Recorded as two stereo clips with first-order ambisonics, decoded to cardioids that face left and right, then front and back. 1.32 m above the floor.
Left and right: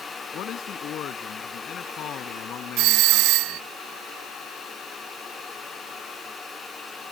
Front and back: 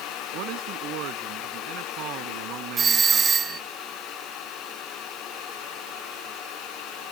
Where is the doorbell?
110° right.